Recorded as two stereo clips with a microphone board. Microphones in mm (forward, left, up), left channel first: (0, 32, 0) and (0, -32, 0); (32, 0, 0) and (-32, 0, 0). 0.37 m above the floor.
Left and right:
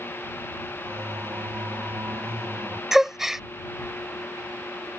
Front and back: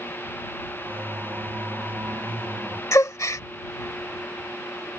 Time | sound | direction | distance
0.8 | singing | 130° right | ?
2.9 | a gasp | 5° right | ?